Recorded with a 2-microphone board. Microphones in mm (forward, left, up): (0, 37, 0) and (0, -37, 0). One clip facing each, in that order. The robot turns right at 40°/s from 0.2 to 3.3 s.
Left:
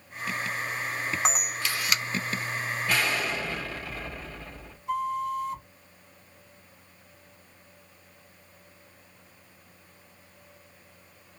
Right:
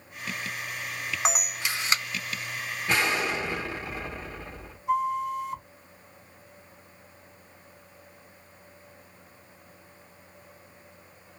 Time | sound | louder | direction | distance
1.2 | a camera shutter | even | 175° right | 0.7 m
2.9 | an explosion | right 3 dB | 25° right (ahead or behind) | 1.2 m
4.9 | a flute | right 2 dB | 20° right (ahead or behind) | 1.2 m